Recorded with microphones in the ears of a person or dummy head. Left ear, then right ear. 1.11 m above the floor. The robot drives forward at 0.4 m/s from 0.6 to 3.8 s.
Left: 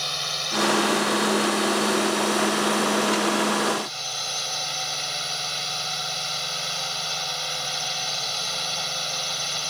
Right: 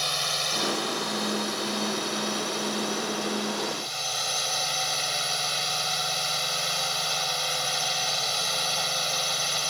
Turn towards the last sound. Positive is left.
turn(degrees=-5)  # may be behind; listen again after turning